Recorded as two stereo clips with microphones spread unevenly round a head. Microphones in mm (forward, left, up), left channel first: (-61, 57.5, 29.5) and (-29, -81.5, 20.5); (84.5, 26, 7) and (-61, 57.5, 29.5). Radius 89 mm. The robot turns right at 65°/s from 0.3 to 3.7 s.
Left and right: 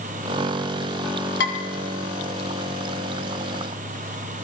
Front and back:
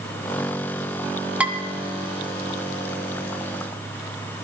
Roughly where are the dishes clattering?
Left.